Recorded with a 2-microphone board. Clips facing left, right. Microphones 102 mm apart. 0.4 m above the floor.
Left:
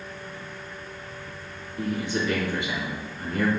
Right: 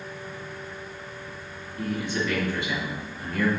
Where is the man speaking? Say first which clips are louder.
Left 1 dB; 20° left (ahead or behind), 2.5 m.